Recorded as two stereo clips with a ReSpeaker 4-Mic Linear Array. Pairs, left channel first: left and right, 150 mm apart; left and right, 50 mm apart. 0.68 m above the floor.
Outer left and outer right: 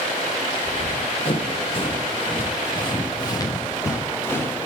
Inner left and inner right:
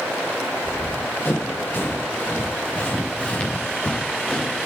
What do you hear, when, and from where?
0.6 s running footsteps: 45° left (ahead or behind), 8 m; by 4.7 s 15° left (ahead or behind), 6.5 m